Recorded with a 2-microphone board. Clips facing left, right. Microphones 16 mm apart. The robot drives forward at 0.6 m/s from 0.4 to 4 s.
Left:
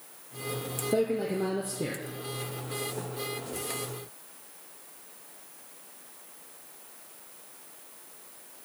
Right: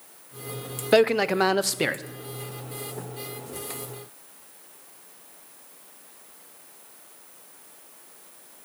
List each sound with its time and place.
0.9 s a man speaking: 60° right (ahead or behind), 0.7 m